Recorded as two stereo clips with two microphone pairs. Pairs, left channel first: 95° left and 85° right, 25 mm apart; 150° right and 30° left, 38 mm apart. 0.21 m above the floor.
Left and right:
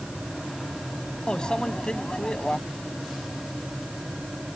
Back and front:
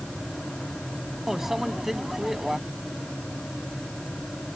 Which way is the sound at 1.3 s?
110° left.